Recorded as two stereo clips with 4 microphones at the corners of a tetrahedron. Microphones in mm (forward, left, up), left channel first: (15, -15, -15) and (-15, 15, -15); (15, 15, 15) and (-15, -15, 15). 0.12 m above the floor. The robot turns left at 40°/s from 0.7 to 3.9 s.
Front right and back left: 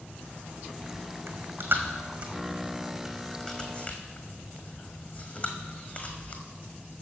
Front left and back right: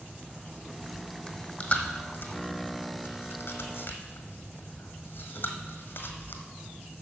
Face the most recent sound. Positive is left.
turn(degrees=10)